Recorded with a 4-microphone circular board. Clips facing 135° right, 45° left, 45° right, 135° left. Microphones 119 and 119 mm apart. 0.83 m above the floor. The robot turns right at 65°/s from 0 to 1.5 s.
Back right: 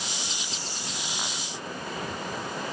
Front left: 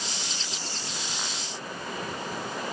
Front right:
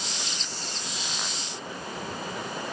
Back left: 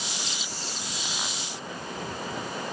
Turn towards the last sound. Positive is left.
No sound to turn to.